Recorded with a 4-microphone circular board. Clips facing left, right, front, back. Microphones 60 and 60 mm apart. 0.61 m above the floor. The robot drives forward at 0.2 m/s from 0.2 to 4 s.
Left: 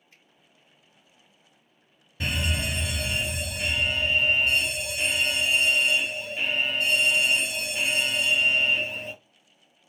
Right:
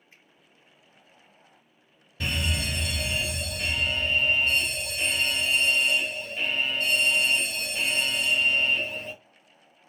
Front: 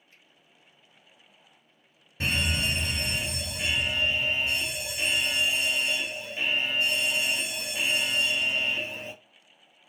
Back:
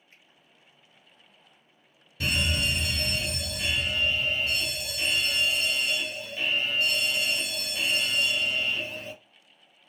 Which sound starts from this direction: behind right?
A finger snap, at 0.1 s.